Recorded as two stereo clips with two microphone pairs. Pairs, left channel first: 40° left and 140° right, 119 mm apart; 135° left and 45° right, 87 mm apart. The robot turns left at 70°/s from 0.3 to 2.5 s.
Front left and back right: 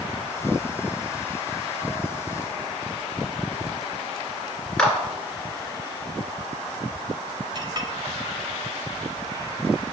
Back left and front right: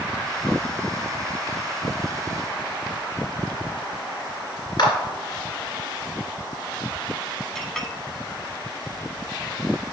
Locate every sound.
4.8 s a clap: 120° left, 2 m
7.5 s a clink: 140° right, 1.0 m